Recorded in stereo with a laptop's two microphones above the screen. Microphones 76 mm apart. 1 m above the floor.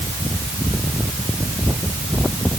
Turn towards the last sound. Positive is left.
No sound to turn to.